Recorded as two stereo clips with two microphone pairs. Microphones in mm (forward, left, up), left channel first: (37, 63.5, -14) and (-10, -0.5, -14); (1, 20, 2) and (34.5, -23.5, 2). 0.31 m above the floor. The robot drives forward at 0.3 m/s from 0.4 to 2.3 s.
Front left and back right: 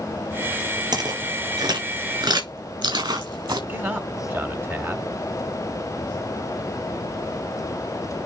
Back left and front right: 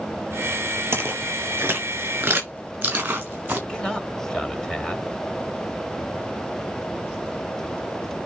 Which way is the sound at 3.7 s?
165° right.